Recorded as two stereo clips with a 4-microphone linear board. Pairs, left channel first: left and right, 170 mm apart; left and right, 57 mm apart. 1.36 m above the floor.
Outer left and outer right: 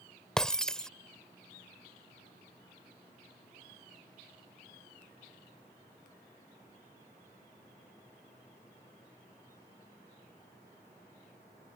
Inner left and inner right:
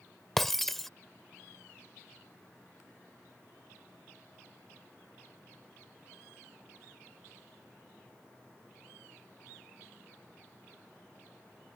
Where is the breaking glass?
5° left (ahead or behind).